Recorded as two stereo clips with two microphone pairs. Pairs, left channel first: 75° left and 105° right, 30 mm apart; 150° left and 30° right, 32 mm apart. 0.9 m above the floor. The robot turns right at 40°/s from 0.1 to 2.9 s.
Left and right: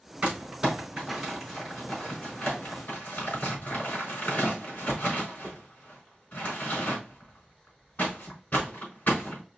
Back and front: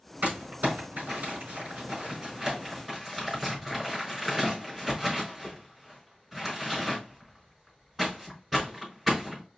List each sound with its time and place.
0.2 s crumpling: 55° right, 3.5 m; by 9.4 s 55° left, 3.5 m